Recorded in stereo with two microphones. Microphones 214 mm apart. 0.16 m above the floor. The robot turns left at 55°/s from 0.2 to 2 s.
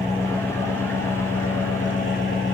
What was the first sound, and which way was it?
An engine running, 145° left.